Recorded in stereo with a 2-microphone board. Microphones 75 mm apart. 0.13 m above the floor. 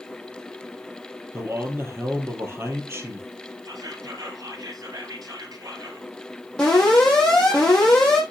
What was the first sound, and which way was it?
A man speaking, 35° right (ahead or behind).